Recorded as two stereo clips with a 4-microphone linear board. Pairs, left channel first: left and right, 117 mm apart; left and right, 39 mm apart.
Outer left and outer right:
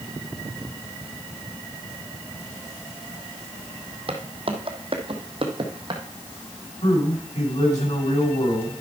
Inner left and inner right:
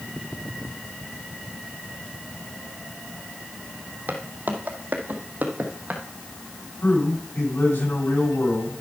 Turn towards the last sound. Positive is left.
turn(degrees=80)